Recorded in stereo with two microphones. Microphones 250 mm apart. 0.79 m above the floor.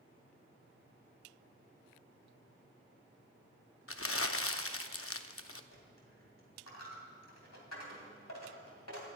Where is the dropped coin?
80° left, 2.5 m.